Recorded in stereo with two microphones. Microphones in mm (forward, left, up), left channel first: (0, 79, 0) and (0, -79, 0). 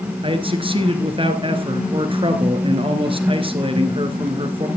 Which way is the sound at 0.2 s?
35° right (ahead or behind).